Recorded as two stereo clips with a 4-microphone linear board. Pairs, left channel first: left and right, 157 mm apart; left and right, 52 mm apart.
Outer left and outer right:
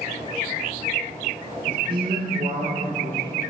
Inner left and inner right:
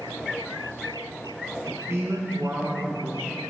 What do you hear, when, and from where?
1.7 s a man speaking: 75° right (ahead or behind), 3.5 m